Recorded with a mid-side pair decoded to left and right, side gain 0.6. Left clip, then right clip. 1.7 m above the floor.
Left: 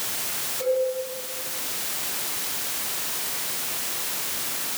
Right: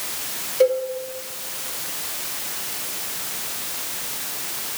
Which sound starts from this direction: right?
A cowbell, at 0.6 s.